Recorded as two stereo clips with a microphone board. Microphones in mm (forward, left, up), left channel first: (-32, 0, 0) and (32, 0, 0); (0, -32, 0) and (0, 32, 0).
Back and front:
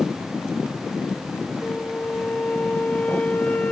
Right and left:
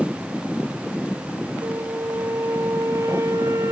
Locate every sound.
1.6 s a flute: 115° left